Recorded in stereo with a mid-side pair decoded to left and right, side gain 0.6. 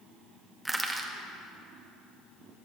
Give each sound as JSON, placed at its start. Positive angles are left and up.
{"t": 0.7, "sound": "crushing", "azimuth_deg": -10, "distance_m": 1.0}